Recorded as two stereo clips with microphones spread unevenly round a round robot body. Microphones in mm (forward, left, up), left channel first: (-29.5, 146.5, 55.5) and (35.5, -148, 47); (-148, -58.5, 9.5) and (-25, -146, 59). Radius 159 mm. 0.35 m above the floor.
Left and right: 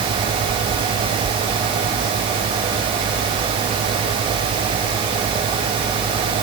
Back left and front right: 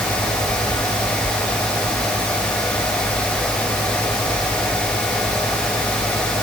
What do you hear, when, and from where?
Only background noise.